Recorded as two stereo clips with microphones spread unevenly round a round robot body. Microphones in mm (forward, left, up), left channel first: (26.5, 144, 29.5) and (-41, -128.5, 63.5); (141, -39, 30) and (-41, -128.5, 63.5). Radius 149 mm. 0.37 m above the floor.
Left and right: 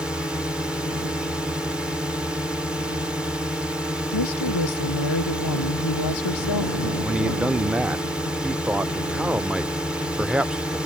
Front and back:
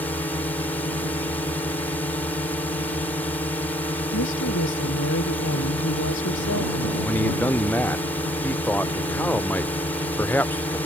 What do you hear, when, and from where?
0.0 s a drone: 5° right
4.1 s a woman speaking: 65° left
7.0 s a man speaking: 5° right